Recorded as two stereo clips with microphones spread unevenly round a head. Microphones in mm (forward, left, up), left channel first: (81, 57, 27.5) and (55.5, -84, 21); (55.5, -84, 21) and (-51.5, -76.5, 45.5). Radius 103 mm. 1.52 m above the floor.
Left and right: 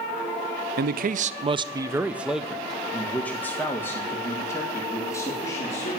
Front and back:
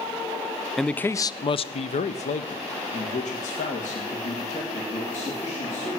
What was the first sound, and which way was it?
A man speaking, 95° right.